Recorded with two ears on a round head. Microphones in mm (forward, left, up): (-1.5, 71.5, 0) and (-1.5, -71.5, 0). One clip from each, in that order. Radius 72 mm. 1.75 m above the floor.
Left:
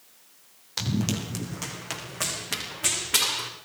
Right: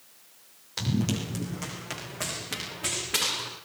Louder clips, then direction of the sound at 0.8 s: Left 1 dB; 20° left (ahead or behind).